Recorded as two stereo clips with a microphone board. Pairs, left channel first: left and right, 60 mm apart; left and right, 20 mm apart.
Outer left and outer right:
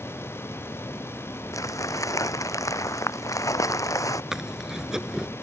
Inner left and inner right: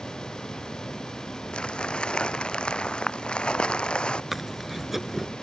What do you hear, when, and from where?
1.5 s crumpling: 70° left (ahead or behind)
4.3 s chewing: 10° right (ahead or behind)